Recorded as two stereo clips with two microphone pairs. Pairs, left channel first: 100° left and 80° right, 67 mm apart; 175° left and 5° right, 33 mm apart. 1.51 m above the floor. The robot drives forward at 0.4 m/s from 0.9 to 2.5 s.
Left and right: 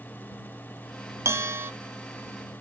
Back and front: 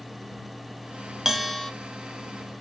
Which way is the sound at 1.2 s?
80° right.